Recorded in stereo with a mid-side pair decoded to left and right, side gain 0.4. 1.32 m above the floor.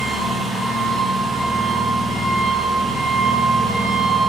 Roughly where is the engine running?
Ahead right.